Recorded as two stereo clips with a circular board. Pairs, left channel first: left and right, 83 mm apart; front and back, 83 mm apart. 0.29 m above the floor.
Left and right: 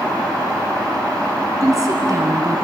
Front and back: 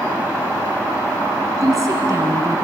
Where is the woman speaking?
135° right, 3.5 m.